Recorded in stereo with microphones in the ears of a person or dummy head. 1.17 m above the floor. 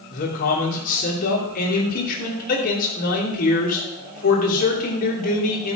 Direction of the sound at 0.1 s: 50° left (ahead or behind).